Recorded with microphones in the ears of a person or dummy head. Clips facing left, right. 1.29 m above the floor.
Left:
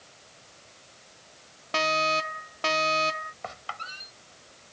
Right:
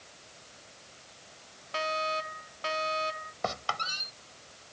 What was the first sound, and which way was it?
A fire alarm, 70° left (ahead or behind).